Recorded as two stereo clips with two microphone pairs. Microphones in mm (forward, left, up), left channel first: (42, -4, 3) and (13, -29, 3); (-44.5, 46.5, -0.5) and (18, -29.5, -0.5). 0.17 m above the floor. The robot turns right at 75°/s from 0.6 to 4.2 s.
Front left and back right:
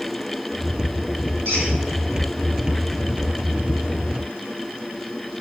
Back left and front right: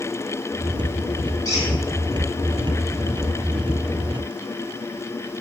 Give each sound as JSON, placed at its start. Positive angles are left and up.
{"t": 1.4, "sound": "a squeak", "azimuth_deg": -175, "distance_m": 1.5}